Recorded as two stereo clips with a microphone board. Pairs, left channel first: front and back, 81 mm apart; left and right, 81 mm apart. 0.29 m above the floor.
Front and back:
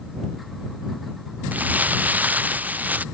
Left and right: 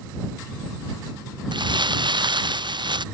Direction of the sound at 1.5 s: 110° right.